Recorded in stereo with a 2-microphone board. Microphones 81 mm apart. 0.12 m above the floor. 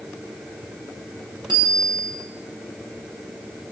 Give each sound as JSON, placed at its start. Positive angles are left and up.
{"t": 1.5, "sound": "a bicycle bell", "side_deg": -65, "distance_m": 7.5}